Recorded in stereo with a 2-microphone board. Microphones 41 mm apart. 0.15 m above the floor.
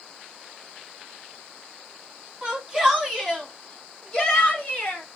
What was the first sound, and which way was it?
A shout, 20° right (ahead or behind).